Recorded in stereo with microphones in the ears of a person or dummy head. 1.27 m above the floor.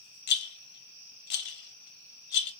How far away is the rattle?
About 0.7 m.